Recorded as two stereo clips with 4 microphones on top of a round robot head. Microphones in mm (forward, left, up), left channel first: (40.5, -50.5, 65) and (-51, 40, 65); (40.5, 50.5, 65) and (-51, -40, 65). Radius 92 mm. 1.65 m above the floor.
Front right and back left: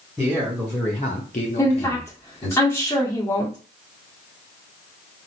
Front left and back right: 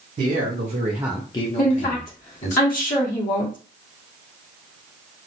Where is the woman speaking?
25° left, 1.4 m.